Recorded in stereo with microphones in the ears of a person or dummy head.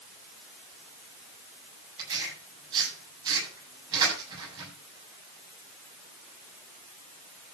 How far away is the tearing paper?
About 8 m.